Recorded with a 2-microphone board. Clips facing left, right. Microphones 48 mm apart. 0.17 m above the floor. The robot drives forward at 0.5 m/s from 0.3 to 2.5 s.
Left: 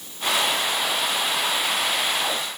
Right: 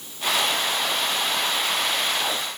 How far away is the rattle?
I don't hear a rattle.